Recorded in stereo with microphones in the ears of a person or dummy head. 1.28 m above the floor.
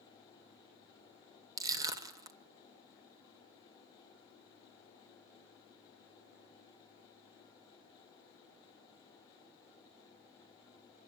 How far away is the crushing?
About 1.9 m.